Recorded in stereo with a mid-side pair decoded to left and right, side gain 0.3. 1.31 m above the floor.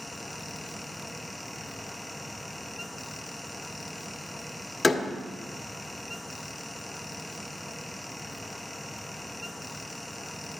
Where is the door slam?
40° left, 1.6 m.